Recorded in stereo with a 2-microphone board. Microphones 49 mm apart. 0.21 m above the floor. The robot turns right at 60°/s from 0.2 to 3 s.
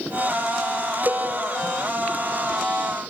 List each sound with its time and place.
1.1 s a cowbell: 40° right (ahead or behind), 3 m; by 1.2 s 55° right (ahead or behind), 3 m